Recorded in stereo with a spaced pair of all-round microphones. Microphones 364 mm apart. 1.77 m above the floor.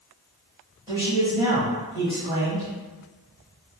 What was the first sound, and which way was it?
A man speaking, 10° right (ahead or behind).